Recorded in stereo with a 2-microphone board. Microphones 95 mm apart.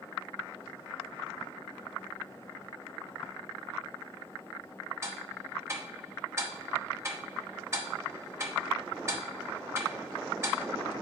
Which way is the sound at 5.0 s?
30° right (ahead or behind).